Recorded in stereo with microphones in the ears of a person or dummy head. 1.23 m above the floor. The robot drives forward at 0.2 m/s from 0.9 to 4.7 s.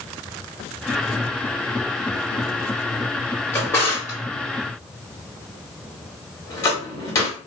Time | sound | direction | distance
3.5 | a drawer | 15° left (ahead or behind) | 1.0 m